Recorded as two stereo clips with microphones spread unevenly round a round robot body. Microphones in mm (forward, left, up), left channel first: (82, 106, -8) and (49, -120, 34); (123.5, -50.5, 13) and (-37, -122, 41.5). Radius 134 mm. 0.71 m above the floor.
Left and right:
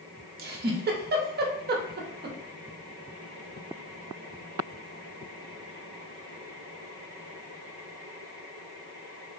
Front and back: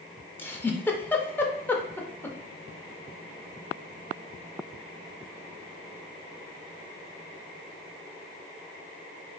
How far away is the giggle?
About 0.5 m.